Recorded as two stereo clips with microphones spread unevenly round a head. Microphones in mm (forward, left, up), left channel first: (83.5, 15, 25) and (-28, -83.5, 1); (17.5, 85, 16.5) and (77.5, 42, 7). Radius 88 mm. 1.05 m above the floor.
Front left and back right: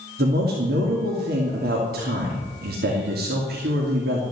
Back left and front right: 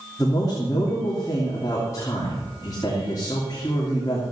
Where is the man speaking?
150° right, 2.5 m.